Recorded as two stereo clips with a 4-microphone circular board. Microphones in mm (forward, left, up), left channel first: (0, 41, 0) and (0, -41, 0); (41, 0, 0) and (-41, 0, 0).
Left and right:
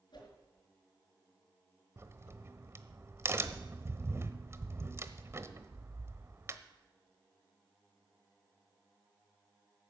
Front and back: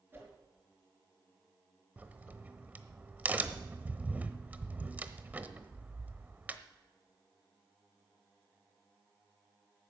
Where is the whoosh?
115° left, 5 m.